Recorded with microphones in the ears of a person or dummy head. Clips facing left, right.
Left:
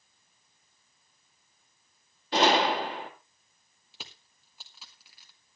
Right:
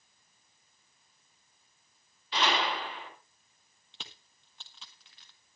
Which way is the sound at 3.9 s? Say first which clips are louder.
Left 2 dB; 10° left (ahead or behind).